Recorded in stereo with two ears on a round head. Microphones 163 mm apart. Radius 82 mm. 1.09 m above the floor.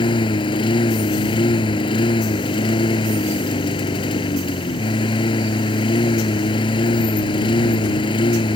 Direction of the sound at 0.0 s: 30° left (ahead or behind).